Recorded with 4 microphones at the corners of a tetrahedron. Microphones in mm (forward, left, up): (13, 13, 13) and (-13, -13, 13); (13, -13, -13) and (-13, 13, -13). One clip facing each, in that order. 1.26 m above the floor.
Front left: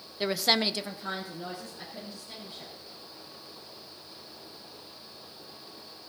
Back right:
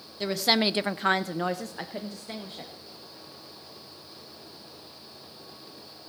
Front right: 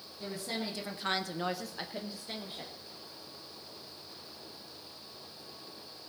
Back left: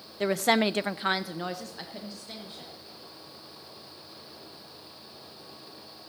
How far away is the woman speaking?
About 0.8 m.